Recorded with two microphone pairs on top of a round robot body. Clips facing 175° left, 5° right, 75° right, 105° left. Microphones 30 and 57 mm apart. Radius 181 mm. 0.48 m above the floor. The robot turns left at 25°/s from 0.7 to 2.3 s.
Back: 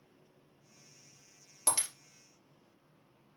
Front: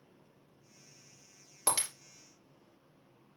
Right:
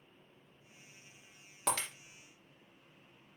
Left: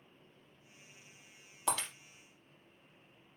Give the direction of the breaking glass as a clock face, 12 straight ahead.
3 o'clock.